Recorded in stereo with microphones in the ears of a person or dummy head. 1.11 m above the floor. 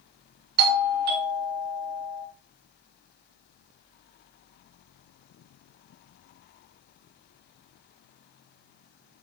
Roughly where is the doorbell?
Right.